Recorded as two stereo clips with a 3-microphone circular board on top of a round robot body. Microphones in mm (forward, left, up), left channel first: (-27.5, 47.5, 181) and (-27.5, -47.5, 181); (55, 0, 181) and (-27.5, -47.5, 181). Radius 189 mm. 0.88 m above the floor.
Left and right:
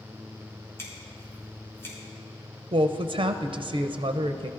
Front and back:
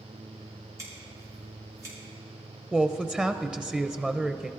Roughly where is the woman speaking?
Right.